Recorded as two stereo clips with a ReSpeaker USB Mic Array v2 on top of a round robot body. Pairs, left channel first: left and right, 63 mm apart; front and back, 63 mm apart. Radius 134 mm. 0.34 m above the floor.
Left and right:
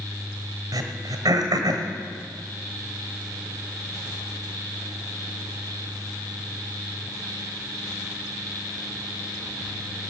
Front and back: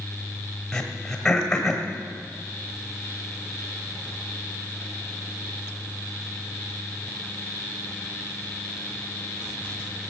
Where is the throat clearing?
80° right, 1.5 m.